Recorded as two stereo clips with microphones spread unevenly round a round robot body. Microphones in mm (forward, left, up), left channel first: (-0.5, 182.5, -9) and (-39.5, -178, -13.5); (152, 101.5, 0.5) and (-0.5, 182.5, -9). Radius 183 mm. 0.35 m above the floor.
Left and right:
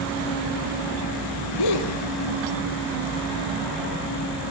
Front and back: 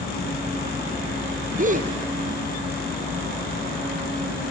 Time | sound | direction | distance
1.6 | a gasp | 110° left | 2.5 m